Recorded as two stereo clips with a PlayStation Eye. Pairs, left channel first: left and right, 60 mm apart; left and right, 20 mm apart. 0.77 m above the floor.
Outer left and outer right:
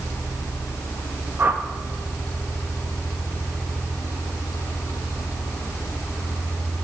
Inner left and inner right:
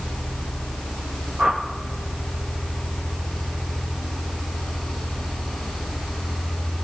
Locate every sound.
1.4 s a whoosh: 35° right (ahead or behind), 1.0 m